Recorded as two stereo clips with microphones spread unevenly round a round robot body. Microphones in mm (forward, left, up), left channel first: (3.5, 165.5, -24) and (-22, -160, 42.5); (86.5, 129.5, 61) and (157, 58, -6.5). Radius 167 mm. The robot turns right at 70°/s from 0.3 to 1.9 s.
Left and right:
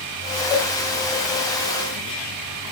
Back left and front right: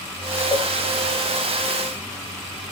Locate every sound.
0.5 s a cowbell: 90° left, 1.6 m; by 0.7 s 100° left, 1.6 m